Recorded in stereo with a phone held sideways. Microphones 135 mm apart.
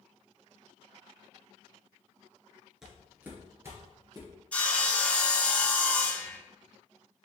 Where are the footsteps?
5° right (ahead or behind), 1.4 m; by 4.3 s 30° right (ahead or behind), 2.0 m.